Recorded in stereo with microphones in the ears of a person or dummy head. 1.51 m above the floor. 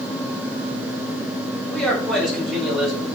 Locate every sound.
1.7 s a man speaking: 5° left (ahead or behind), 6 m; by 3.1 s centre (ahead or behind), 7 m